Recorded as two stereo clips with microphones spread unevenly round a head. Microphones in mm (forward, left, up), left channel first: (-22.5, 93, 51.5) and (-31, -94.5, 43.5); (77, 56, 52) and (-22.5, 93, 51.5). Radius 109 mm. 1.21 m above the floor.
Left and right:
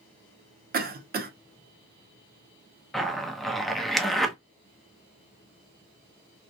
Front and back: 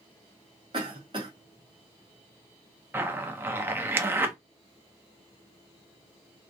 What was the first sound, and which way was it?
A cough, 135° right.